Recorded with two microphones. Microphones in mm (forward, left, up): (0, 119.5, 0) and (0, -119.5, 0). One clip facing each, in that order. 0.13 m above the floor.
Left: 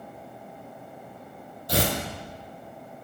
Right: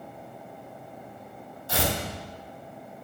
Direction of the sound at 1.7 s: 40° left (ahead or behind).